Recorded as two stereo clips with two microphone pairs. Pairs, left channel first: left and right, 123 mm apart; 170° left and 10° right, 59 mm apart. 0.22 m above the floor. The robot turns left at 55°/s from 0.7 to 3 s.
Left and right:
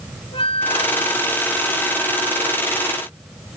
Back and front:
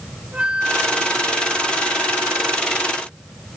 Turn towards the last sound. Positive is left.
turn(degrees=-70)